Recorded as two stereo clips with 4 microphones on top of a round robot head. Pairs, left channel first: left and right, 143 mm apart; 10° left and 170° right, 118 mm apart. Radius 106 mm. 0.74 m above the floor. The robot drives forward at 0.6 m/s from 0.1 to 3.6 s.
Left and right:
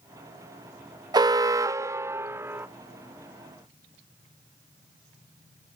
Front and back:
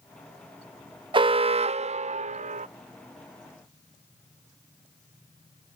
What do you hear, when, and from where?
1.1 s an alarm: 145° right; by 2.7 s 165° right